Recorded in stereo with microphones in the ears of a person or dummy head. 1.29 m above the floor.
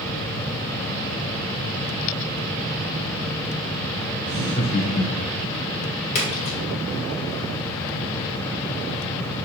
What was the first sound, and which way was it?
Laughter, 10° left (ahead or behind).